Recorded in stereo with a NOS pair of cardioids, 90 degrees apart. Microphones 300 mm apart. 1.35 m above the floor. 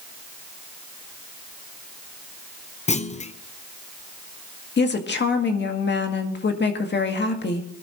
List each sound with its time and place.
2.9 s a clunk: 20° left, 1.0 m
4.8 s a woman speaking: 35° left, 1.9 m